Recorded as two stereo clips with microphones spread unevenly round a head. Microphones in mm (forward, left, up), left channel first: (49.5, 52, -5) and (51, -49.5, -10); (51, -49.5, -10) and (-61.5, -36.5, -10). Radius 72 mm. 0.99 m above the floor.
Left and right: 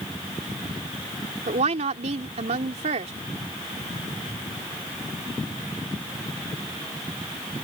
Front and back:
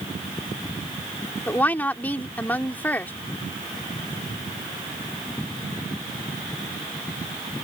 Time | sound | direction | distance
1.5 | a woman speaking | 80° right | ?